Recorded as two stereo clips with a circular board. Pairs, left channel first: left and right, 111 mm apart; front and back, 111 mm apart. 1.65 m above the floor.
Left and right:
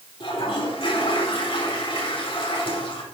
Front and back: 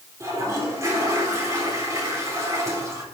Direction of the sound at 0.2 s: 120° left.